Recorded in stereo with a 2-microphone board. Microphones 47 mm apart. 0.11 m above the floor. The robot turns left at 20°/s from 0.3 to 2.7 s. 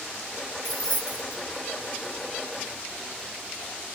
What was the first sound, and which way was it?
Keys jangling, 30° right (ahead or behind).